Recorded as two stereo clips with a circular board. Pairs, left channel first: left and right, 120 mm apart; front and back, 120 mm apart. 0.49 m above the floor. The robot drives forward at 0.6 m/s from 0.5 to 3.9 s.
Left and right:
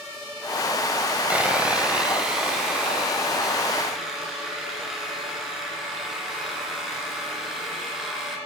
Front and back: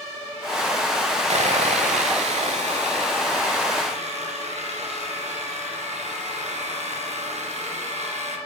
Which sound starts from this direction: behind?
Sawing, at 1.3 s.